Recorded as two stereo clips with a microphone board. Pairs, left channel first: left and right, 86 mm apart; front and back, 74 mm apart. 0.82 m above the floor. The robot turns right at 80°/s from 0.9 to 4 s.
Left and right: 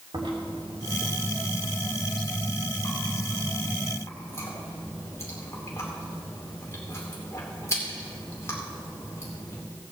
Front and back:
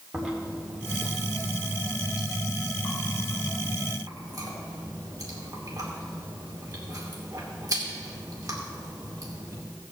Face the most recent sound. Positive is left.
turn(degrees=145)